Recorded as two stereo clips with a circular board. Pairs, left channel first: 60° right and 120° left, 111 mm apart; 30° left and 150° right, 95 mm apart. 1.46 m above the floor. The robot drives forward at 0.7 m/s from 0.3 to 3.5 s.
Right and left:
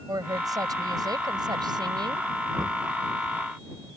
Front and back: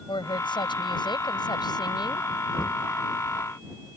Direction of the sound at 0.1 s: 65° left.